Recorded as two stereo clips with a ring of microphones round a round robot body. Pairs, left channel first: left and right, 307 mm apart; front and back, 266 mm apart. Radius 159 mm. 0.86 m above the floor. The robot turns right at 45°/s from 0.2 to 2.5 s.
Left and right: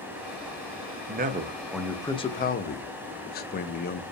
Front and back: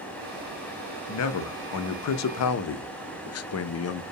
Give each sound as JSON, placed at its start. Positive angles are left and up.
{"t": 1.1, "sound": "a man speaking", "azimuth_deg": -35, "distance_m": 0.5}